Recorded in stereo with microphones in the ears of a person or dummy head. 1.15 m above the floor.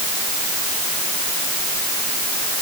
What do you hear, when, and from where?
Only background noise.